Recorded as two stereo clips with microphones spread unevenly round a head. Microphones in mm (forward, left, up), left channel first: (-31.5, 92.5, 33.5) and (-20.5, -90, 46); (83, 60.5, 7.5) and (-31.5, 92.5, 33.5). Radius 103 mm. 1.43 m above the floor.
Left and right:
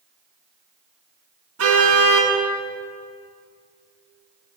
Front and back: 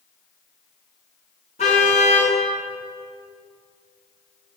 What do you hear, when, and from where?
1.6 s a car horn: 75° right, 8 m